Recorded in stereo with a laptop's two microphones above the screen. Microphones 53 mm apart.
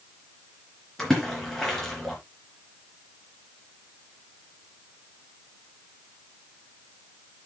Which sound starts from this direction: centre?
A splash, at 1.0 s.